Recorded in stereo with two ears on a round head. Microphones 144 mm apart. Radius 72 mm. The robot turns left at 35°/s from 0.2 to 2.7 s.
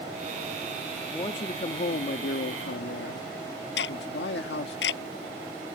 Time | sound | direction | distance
1.1 | a man speaking | 155° left | ?
3.8 | ticking | 80° left | ?